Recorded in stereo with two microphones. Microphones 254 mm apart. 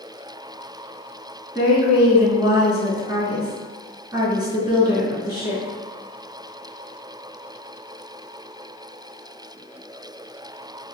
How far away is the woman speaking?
About 1.3 m.